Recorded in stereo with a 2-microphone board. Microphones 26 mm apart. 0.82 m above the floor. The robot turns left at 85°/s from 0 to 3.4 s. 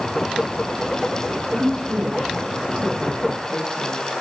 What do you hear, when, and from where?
1.5 s a woman speaking: 35° left, 5.5 m; by 4.0 s 125° right, 5.5 m